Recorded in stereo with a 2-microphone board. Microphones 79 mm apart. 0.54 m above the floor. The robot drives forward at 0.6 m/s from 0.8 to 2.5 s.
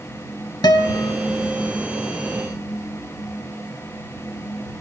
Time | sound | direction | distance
0.6 | a guitar | 65° left (ahead or behind) | 0.8 m